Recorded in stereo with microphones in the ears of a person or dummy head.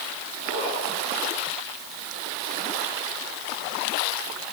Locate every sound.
0.4 s a zipper: 55° right (ahead or behind), 5.5 m